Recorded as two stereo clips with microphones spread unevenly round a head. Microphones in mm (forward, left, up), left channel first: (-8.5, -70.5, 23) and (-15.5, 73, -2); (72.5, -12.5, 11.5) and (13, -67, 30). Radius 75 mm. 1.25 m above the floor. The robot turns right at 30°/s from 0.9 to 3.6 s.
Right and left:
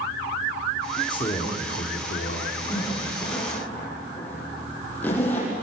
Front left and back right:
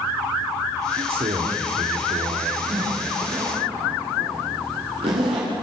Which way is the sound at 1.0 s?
150° right.